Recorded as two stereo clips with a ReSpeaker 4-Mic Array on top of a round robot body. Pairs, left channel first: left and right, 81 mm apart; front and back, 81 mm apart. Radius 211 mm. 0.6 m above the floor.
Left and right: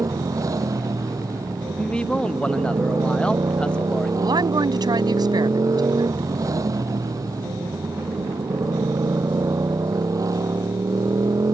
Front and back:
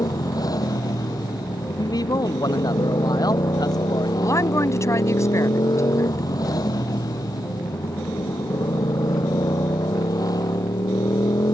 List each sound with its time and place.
0.0 s a motorcycle: 45° right
1.8 s a man speaking: 15° left
4.2 s a woman speaking: 55° right